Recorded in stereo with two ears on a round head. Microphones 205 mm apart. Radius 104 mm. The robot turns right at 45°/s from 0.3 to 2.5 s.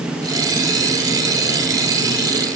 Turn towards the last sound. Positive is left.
No sound to turn to.